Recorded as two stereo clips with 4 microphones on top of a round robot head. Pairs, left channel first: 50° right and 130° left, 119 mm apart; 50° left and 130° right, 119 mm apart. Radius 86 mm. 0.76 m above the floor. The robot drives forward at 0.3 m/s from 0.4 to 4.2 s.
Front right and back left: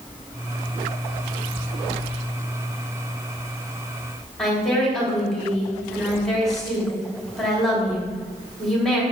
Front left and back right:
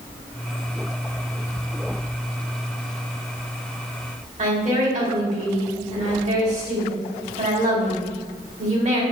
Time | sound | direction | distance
4.4 | a woman speaking | 135° right | 2.5 m